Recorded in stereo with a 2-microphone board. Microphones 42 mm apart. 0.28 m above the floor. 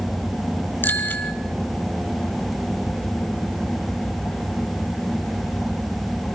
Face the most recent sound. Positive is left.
turn(degrees=50)  # may be behind; listen again after turning